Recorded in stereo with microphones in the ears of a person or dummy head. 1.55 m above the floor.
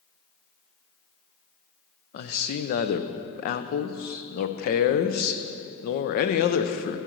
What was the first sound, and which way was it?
A man speaking, 55° left (ahead or behind).